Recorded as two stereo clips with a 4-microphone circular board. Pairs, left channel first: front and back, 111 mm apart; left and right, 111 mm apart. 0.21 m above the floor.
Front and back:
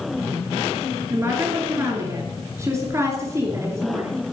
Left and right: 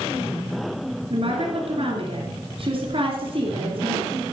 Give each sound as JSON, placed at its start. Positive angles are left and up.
{"t": 1.1, "sound": "a woman speaking", "azimuth_deg": -115, "distance_m": 2.5}